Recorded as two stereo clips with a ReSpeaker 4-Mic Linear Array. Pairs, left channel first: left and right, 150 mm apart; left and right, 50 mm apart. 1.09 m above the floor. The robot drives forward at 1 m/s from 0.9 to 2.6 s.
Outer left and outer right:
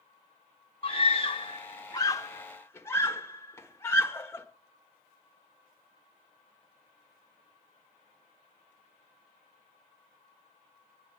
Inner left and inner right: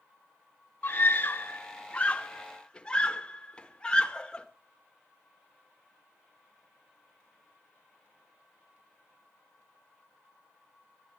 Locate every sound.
0.8 s a scream: 40° left (ahead or behind), 0.8 m; by 4.5 s 15° left (ahead or behind), 1.7 m